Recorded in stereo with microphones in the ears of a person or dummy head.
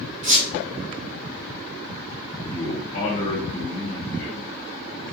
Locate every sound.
0.2 s a squeak: 45° right (ahead or behind), 1.3 m
2.5 s a man speaking: 20° left (ahead or behind), 1.2 m